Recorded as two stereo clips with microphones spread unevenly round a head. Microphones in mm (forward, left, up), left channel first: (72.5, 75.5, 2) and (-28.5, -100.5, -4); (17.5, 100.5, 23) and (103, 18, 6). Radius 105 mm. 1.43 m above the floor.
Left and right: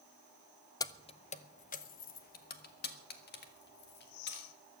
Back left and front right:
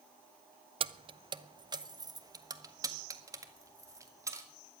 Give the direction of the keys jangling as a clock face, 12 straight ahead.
12 o'clock.